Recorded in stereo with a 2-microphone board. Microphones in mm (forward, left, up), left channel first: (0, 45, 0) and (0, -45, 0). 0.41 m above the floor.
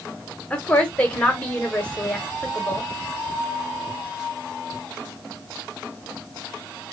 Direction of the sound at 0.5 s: 15° left (ahead or behind).